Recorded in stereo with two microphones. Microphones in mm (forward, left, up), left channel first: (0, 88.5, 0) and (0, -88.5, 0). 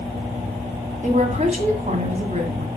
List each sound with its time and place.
1.0 s a woman speaking: 40° right (ahead or behind), 2.5 m